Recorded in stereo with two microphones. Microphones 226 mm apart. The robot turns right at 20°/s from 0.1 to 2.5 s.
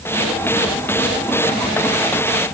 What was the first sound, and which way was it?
Only background noise.